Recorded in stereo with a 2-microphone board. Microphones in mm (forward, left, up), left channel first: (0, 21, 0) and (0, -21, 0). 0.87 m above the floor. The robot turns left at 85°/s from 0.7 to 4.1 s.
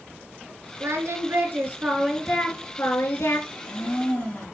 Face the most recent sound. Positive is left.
turn(degrees=40)